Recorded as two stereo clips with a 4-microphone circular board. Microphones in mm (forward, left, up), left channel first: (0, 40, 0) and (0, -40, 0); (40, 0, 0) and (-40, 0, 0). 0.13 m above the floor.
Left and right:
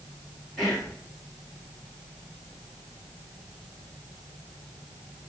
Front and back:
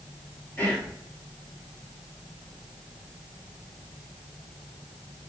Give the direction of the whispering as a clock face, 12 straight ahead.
12 o'clock.